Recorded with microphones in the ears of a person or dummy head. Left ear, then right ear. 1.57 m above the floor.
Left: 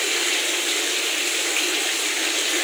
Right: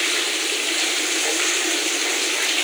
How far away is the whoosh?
No whoosh in this recording.